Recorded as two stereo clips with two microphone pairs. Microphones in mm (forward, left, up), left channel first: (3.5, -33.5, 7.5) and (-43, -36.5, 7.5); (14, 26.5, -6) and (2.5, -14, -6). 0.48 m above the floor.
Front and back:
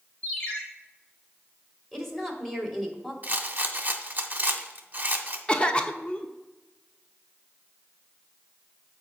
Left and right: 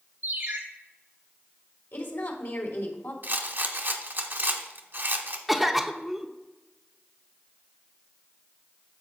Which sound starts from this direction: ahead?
A cough, at 5.5 s.